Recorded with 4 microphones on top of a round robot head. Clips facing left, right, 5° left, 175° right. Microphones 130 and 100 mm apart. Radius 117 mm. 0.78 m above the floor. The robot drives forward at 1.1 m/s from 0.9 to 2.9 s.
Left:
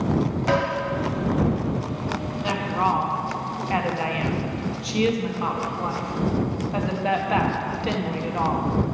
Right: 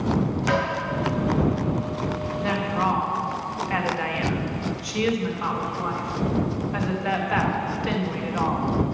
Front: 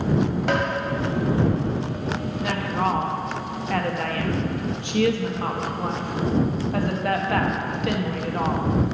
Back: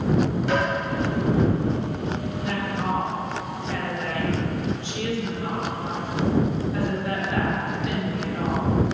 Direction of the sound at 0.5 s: 30° left.